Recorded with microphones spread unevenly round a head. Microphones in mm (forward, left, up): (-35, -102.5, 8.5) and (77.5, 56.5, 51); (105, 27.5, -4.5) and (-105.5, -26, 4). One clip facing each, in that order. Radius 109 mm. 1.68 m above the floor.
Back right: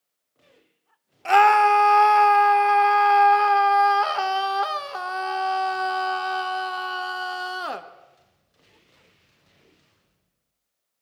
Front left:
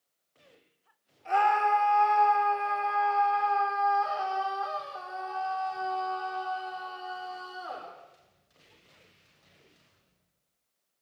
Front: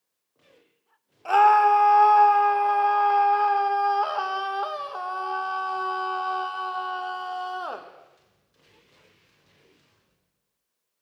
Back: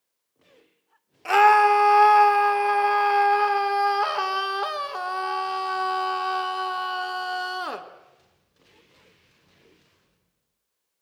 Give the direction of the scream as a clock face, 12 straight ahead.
4 o'clock.